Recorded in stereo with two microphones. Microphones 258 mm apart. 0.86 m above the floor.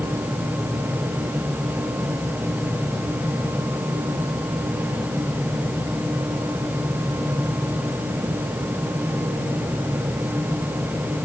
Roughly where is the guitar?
I don't hear a guitar.